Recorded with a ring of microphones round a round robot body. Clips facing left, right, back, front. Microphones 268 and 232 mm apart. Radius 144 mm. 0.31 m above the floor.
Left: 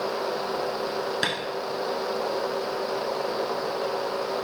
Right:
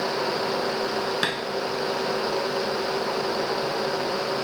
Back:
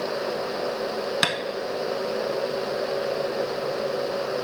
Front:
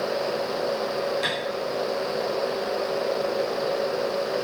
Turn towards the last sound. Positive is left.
turn(degrees=-175)